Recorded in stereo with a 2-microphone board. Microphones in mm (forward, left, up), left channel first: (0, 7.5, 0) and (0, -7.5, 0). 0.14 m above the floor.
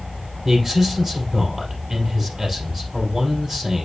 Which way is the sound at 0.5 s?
30° right (ahead or behind).